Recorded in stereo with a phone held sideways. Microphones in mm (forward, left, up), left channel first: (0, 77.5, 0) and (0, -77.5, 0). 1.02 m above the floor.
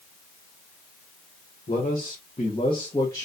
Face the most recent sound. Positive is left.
turn(degrees=20)  # may be behind; listen again after turning